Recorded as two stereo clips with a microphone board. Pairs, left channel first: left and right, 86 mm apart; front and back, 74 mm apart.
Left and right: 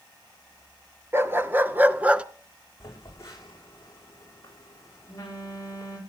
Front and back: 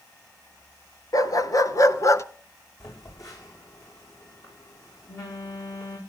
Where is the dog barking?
30° right, 1.1 m; by 2.2 s 15° right, 0.6 m.